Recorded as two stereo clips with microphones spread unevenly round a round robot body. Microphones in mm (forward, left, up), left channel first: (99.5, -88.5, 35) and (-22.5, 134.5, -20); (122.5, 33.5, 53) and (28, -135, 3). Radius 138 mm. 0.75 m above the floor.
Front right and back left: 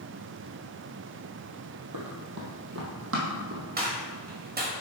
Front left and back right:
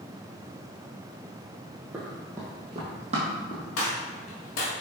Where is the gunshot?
65° left, 1.8 m.